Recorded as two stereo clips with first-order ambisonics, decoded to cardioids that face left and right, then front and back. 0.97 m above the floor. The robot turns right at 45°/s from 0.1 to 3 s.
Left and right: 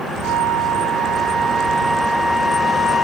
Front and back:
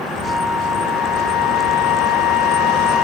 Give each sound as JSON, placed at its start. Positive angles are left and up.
{"t": 0.2, "sound": "a flute", "azimuth_deg": -70, "distance_m": 0.7}